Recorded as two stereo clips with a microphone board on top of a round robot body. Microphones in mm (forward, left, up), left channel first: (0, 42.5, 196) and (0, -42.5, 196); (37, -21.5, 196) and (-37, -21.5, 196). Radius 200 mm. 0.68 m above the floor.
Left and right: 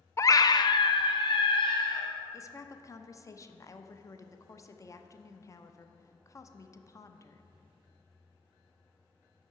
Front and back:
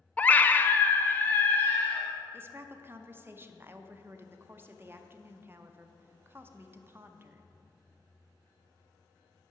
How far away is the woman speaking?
About 0.8 m.